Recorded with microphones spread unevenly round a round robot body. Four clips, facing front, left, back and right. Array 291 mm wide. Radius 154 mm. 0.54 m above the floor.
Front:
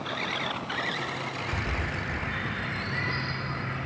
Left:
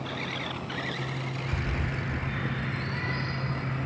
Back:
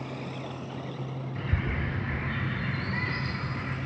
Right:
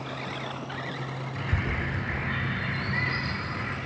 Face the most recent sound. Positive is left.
turn(degrees=-155)